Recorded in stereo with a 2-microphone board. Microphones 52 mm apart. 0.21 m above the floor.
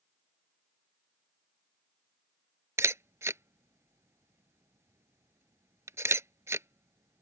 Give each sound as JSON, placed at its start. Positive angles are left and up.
{"t": 2.8, "sound": "a camera shutter", "side_deg": -70}